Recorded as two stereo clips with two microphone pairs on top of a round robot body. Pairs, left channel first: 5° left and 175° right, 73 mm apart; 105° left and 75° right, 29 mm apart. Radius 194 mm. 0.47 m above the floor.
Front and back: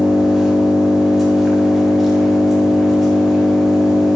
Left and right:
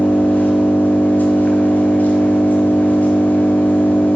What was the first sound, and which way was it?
An engine running, 95° left.